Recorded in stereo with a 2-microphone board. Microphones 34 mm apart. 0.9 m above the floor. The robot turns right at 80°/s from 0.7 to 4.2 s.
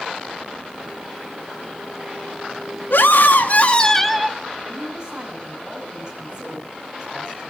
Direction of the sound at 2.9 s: 80° left.